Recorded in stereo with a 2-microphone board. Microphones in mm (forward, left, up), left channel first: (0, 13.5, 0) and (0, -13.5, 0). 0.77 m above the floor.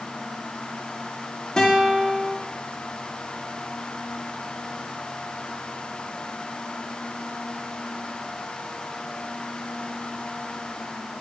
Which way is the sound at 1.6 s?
25° left (ahead or behind).